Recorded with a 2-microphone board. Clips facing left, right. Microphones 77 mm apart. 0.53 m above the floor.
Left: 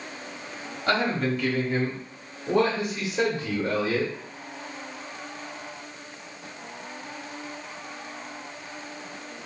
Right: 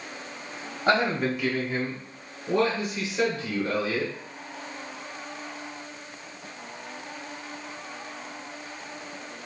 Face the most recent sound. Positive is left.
turn(degrees=50)  # may be behind; listen again after turning